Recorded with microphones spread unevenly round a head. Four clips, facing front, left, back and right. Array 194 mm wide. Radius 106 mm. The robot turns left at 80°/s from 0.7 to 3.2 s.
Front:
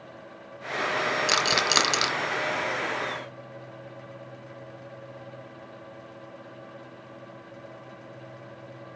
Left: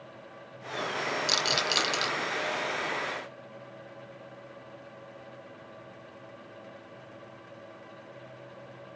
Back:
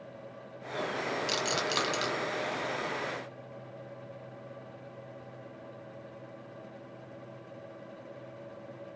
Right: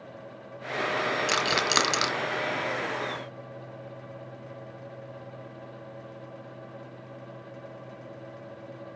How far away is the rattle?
About 1.4 m.